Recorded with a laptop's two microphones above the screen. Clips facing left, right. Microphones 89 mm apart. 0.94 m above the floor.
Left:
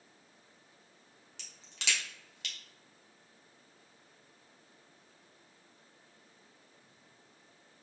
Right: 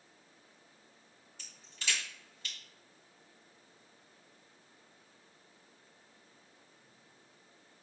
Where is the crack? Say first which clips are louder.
Left 2 dB; 80° left, 0.9 m.